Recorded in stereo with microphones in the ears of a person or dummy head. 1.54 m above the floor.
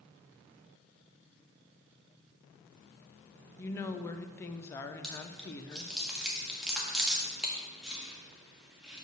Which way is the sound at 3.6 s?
15° left (ahead or behind).